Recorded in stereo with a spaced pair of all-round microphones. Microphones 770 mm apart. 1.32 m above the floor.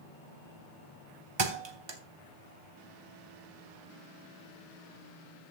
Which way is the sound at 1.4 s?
35° right (ahead or behind).